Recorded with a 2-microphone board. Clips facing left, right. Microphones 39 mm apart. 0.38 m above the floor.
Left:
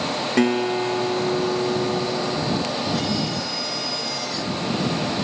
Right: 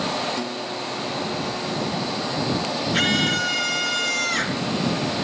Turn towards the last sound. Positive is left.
turn(degrees=-70)  # may be behind; listen again after turning